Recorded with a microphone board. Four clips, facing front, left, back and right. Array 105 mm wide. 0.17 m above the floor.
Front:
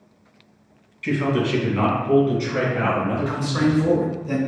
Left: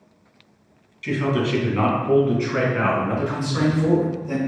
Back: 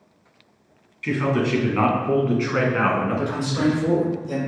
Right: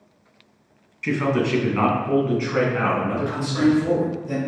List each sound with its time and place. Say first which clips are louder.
1.0 s a man speaking: right 1 dB, even; 105° right, 1.1 m; by 3.8 s 170° left, 1.8 m
3.3 s a man speaking: right 3 dB, front 1 dB; 20° left, 1.3 m